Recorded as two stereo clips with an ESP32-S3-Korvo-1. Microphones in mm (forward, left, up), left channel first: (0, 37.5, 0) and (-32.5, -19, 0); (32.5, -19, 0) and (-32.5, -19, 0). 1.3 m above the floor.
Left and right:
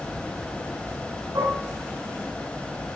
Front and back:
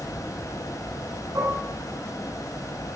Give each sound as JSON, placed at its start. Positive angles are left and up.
{"t": 1.4, "sound": "dishes clattering", "azimuth_deg": -145, "distance_m": 9.5}